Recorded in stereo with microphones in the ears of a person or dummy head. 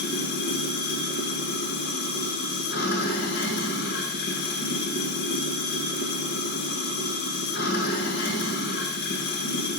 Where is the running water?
60° left (ahead or behind), 1.3 m.